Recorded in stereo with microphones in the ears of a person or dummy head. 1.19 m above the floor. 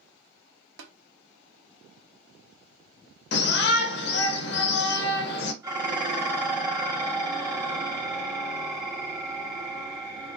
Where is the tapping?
65° right (ahead or behind), 0.8 m.